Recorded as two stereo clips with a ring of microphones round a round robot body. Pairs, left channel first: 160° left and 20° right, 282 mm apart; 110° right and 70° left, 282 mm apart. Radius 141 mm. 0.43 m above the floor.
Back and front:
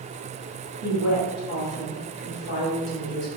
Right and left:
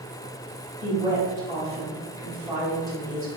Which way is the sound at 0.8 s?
145° left.